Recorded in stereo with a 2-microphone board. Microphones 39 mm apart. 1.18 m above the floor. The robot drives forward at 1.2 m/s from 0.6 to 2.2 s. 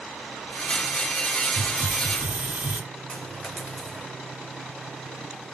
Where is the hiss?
55° right (ahead or behind), 1.3 m; by 2.8 s 35° right (ahead or behind), 1.9 m.